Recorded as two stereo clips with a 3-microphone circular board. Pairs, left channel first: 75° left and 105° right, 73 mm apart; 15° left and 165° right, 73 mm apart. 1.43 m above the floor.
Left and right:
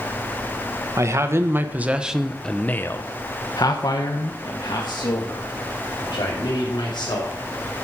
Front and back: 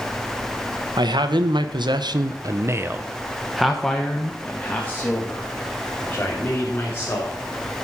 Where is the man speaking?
150° right, 1.3 m; by 7.4 s 75° left, 3.5 m.